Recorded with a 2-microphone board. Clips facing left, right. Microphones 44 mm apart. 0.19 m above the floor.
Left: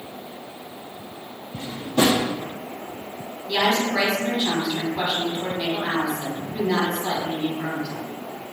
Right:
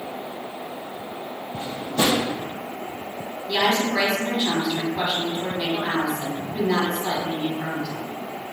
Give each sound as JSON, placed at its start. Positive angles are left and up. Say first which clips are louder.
{"t": 1.5, "sound": "a drawer", "louder": "left 3 dB", "side_deg": 80, "distance_m": 1.7}
{"t": 3.5, "sound": "a woman speaking", "louder": "even", "side_deg": 5, "distance_m": 1.0}